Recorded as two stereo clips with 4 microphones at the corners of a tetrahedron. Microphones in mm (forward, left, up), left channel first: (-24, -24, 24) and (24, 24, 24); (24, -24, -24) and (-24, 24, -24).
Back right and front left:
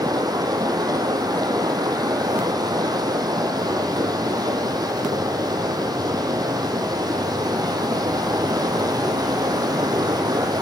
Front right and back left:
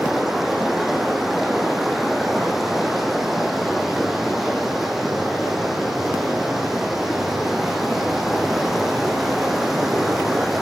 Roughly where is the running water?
Ahead left.